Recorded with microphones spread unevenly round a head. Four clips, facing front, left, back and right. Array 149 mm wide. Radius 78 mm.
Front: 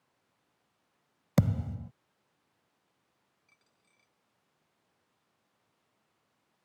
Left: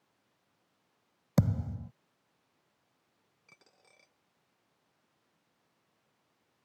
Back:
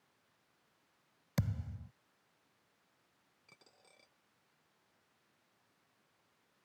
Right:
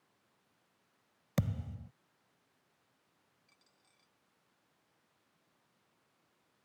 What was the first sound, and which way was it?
A thud, 35° left.